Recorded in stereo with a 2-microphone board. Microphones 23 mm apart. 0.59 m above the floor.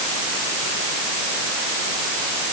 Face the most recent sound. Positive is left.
No sound to turn to.